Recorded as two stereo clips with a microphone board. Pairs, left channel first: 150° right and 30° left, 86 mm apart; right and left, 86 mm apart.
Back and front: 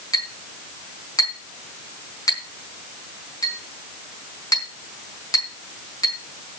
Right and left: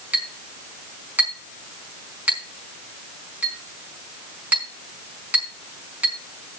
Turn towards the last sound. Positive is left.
turn(degrees=160)